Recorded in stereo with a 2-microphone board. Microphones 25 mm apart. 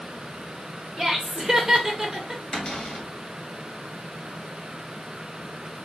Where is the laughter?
20° right (ahead or behind), 1.0 m.